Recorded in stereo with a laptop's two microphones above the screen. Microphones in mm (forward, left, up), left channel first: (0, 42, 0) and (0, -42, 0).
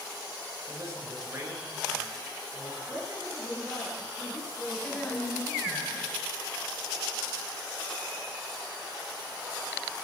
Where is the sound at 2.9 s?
35° right (ahead or behind), 9 m.